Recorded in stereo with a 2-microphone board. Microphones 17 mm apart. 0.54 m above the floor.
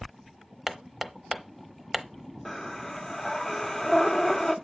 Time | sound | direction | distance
0.7 | hammering | 10° right (ahead or behind) | 0.6 m
2.5 | breathing | 25° left (ahead or behind) | 0.8 m